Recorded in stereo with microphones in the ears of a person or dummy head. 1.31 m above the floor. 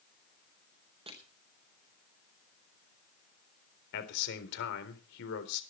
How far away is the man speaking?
About 3.5 m.